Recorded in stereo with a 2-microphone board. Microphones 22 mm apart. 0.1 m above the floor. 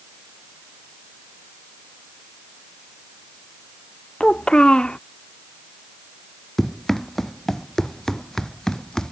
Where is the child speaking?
45° left (ahead or behind).